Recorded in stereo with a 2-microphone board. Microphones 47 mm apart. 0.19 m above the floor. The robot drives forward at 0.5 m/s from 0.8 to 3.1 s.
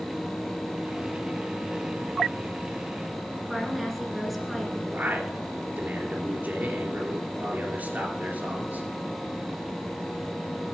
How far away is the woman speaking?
About 2.5 m.